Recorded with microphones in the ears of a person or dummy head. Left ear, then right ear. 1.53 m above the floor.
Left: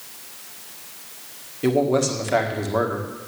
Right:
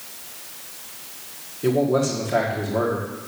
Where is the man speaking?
65° left (ahead or behind), 1.9 m.